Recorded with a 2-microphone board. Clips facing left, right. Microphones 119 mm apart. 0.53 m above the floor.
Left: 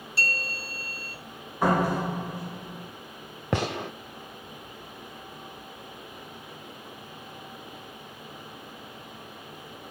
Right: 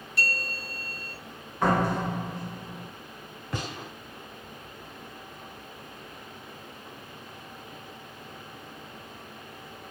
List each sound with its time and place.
0.2 s a bell: 30° left (ahead or behind), 3.5 m
1.6 s a door slam: 10° left (ahead or behind), 1.4 m
3.5 s a gunshot: 70° left (ahead or behind), 0.6 m